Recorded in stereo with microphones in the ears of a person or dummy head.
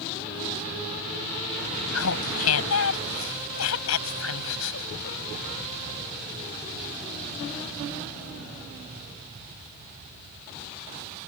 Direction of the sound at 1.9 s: 85° left.